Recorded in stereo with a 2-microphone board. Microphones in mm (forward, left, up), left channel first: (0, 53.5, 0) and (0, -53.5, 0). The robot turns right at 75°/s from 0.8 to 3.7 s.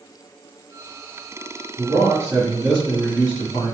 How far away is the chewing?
I don't hear chewing.